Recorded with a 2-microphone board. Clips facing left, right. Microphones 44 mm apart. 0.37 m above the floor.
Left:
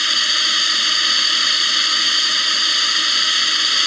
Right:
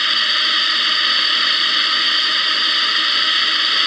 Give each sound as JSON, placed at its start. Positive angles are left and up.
{"t": 0.0, "sound": "a drone", "side_deg": -10}